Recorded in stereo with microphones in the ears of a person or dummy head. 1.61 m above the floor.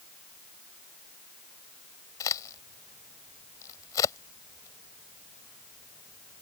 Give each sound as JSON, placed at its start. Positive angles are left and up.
{"t": 2.2, "sound": "a crack", "side_deg": 20}